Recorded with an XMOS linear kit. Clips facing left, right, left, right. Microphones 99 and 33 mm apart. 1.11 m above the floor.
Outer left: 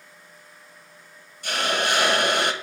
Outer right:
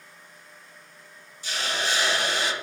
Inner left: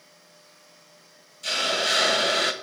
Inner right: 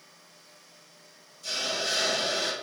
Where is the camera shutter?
No camera shutter in this recording.